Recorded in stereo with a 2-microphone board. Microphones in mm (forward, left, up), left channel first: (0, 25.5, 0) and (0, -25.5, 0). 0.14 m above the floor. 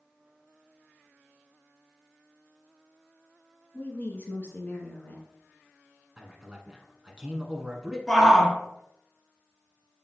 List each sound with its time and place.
3.7 s a woman speaking: 40° left (ahead or behind), 1.8 m
6.2 s a man speaking: 15° right (ahead or behind), 1.1 m
8.1 s a shout: 10° left (ahead or behind), 1.2 m